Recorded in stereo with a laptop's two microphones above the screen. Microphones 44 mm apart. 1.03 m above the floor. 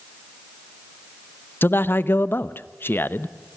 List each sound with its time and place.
1.6 s a man speaking: 55° left (ahead or behind), 0.7 m